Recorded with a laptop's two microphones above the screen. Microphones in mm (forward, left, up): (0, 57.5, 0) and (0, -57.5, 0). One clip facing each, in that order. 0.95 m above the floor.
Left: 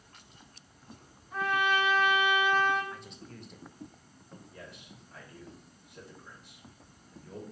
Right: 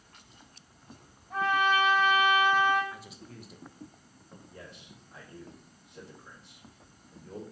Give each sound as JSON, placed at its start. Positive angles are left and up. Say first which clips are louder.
{"t": 1.3, "sound": "a trumpet", "louder": "right 3 dB", "side_deg": -65, "distance_m": 2.5}
{"t": 2.9, "sound": "a man speaking", "louder": "even", "side_deg": -5, "distance_m": 0.6}
{"t": 4.5, "sound": "a man speaking", "louder": "right 1 dB", "side_deg": -10, "distance_m": 2.0}